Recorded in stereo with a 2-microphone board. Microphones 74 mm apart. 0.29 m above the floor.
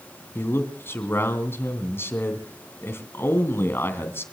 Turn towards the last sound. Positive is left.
turn(degrees=30)  # may be behind; listen again after turning